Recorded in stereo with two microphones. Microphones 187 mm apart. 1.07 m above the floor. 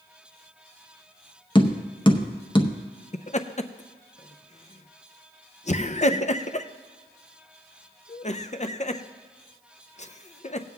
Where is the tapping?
25° left (ahead or behind), 0.8 m.